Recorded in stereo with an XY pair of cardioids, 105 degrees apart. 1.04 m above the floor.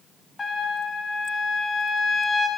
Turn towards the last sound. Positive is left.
turn(degrees=25)